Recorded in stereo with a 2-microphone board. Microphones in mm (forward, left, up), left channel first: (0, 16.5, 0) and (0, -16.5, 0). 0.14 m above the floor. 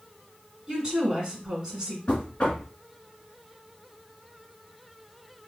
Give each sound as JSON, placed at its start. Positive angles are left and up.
{"t": 0.7, "sound": "a woman speaking", "side_deg": -20, "distance_m": 1.1}
{"t": 2.1, "sound": "knocking", "side_deg": 35, "distance_m": 1.1}